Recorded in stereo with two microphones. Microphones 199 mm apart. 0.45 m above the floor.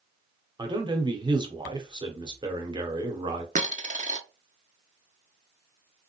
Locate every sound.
0.6 s a man speaking: 20° right (ahead or behind), 0.8 m
3.5 s a dropped coin: 40° right (ahead or behind), 0.5 m